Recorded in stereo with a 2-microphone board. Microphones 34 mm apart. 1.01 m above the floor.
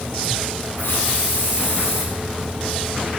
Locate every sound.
0.8 s a hiss: 90° left, 9.5 m